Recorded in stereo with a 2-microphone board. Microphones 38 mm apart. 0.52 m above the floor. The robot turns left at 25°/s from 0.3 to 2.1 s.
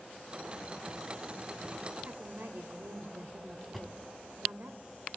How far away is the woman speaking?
About 1.6 m.